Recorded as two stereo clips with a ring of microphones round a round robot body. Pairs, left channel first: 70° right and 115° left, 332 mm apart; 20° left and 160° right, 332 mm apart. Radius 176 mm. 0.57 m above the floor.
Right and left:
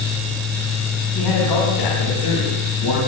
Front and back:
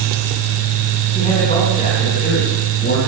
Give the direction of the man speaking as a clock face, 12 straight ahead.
2 o'clock.